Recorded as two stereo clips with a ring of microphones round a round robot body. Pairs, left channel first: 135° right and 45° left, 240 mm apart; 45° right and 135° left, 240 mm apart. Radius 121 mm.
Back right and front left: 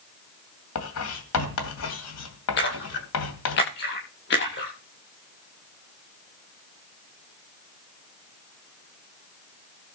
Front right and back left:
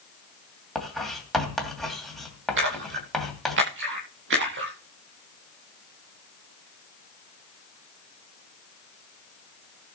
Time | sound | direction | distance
0.8 | writing | 135° right | 2.5 m
2.6 | a splash | straight behind | 10 m